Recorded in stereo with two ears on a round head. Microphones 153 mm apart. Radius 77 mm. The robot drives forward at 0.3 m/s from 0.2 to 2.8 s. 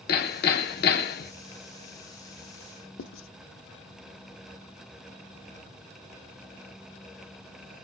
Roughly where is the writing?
Left.